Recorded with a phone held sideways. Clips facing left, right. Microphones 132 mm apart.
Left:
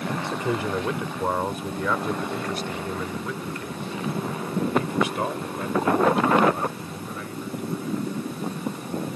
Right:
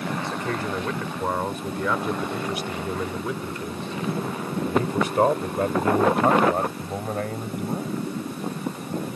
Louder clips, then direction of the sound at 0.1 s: Left 4 dB; 20° left (ahead or behind).